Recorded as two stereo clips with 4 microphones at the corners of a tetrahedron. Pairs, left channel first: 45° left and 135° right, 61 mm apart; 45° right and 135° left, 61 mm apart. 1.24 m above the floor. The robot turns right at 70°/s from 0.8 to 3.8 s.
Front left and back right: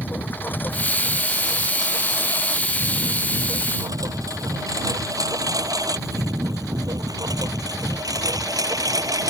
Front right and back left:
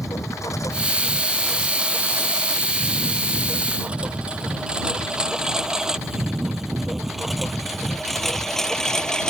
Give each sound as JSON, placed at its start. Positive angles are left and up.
{"t": 0.0, "sound": "a lawn mower", "azimuth_deg": -15}